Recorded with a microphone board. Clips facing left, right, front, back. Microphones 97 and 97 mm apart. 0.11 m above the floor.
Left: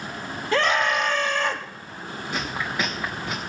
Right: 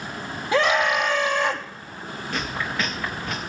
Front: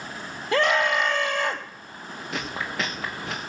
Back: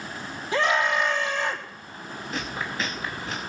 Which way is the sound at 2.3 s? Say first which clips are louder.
Even, front 1 dB; 15° left.